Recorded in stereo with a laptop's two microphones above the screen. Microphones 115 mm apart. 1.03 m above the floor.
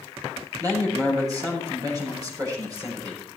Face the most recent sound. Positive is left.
turn(degrees=-30)  # may be behind; listen again after turning